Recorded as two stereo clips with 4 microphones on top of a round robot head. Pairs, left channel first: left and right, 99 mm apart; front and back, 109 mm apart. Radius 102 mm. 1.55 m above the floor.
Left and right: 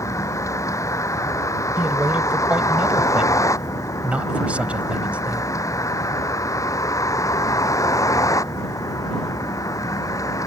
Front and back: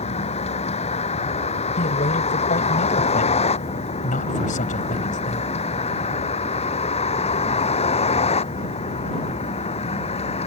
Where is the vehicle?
30° left.